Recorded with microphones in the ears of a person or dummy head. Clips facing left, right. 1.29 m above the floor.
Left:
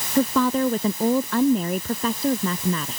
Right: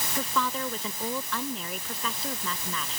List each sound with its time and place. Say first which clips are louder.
0.1 s a woman speaking: left 12 dB; 40° left (ahead or behind)